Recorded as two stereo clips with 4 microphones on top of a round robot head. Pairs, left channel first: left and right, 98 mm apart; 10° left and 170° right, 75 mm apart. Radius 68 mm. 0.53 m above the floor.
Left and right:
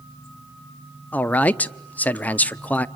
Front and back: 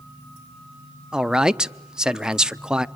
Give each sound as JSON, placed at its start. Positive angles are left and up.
{"t": 1.1, "sound": "a man speaking", "azimuth_deg": 130, "distance_m": 0.6}